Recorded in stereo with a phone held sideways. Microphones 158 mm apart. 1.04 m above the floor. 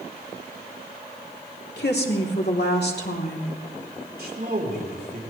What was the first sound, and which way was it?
A woman speaking, 80° left.